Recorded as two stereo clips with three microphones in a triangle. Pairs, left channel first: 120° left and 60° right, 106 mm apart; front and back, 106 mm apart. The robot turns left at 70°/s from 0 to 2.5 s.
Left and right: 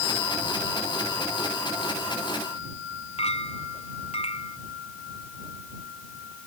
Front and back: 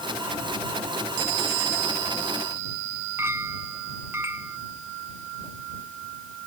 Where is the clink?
115° left.